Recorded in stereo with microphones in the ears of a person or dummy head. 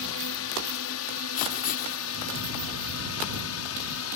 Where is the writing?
45° left (ahead or behind).